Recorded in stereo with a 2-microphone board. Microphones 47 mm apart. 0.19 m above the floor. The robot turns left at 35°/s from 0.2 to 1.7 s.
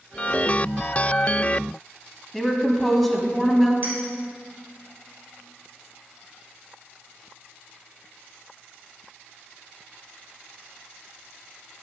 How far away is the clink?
About 3 m.